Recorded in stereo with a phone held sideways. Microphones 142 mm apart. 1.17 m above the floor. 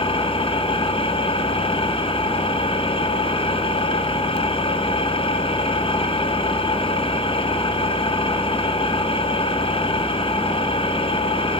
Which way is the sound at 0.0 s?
40° left (ahead or behind).